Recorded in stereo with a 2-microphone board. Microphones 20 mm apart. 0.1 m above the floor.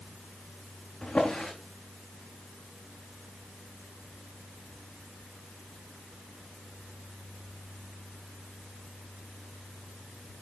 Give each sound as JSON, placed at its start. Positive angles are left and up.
{"t": 1.0, "sound": "a drawer", "side_deg": 55, "distance_m": 5.5}